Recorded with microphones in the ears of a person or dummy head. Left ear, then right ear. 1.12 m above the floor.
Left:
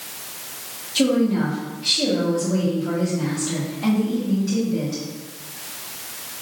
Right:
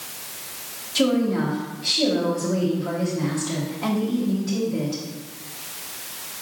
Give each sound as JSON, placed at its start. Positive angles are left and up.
{"t": 0.9, "sound": "a woman speaking", "side_deg": -20, "distance_m": 1.3}